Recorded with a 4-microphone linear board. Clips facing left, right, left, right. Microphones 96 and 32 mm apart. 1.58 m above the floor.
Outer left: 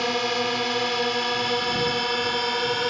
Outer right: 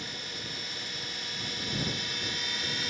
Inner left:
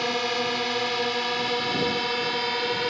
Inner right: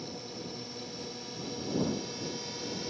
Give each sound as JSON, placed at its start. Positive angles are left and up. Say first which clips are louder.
{"t": 0.0, "sound": "a drone", "louder": "outer left 18 dB, inner left 16 dB", "side_deg": 80}